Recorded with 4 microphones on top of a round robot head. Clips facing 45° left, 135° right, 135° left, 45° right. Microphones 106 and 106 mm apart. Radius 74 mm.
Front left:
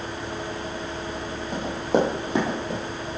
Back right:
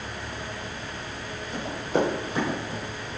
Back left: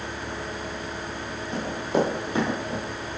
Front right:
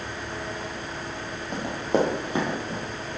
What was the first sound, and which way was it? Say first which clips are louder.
Running footsteps: front left 3 dB, front right 1 dB; straight ahead.